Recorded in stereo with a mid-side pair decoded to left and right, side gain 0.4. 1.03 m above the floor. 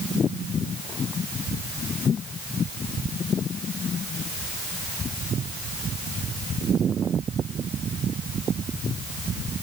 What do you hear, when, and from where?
Only background noise.